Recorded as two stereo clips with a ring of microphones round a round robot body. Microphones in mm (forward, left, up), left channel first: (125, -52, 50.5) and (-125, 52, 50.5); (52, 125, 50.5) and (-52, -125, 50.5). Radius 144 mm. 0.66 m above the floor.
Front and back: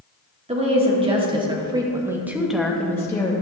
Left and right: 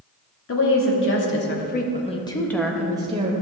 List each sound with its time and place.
0.5 s a woman speaking: 95° left, 1.9 m; by 3.3 s 85° right, 1.1 m